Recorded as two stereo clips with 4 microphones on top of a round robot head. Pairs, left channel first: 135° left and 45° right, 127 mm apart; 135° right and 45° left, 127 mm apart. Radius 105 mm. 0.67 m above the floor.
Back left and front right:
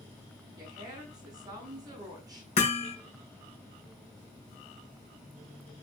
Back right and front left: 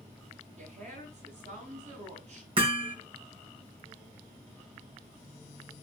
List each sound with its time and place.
0.6 s a woman speaking: 15° left, 9.5 m
2.6 s hammering: 95° left, 5 m